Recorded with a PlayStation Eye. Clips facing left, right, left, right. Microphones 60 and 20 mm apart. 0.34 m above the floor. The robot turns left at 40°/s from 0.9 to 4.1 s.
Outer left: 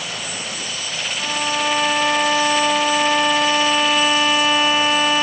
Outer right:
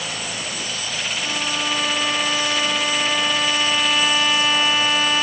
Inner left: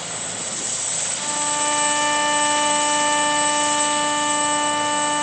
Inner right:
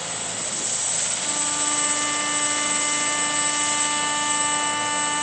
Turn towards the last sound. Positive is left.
turn(degrees=25)